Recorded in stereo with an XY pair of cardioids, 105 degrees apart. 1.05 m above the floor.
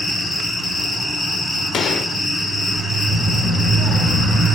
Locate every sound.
0.0 s an insect: 40° left, 3.5 m
1.7 s a gunshot: 65° left, 1.5 m
3.1 s a child speaking: 55° left, 6 m